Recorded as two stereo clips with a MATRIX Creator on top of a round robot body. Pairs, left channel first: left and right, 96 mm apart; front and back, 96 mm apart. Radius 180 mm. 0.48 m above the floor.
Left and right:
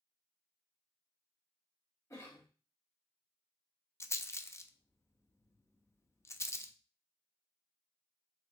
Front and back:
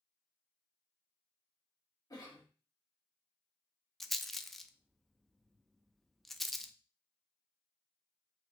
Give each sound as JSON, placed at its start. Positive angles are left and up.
{"t": 2.1, "sound": "a cough", "azimuth_deg": 35, "distance_m": 1.9}
{"t": 4.0, "sound": "a rattle", "azimuth_deg": 85, "distance_m": 0.5}